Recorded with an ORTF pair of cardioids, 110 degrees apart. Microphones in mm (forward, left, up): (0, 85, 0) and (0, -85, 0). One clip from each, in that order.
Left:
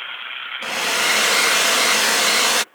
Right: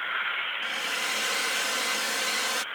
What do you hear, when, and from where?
0.6 s a hair dryer: 65° left